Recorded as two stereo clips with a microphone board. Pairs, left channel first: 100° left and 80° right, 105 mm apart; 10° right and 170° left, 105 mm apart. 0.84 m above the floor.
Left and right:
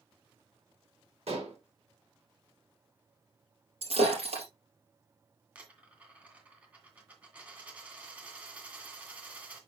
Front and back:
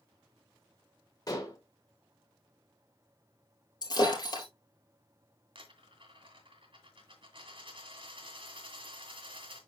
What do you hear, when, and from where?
1.3 s dishes clattering: 65° right, 1.8 m
3.8 s breaking glass: 60° right, 4.5 m
5.5 s a dropped coin: 155° right, 2 m